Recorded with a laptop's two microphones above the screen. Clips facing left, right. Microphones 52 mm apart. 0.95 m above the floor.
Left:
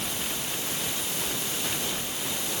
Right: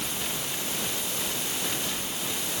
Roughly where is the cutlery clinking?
I don't hear cutlery clinking.